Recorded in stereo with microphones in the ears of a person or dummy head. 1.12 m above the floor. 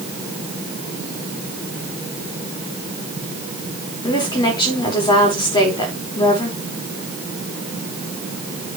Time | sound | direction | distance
4.0 | a woman speaking | 25° left (ahead or behind) | 4 m